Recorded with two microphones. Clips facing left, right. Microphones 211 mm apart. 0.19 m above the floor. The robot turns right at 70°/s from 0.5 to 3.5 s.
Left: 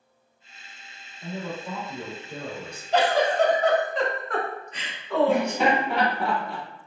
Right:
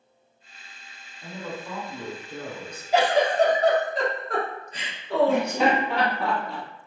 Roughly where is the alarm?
No alarm in this recording.